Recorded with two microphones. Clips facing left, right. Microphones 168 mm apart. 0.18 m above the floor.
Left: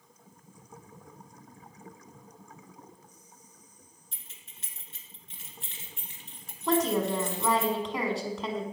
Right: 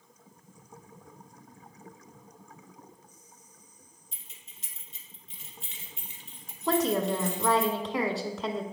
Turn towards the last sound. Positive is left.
turn(degrees=0)  # may be behind; listen again after turning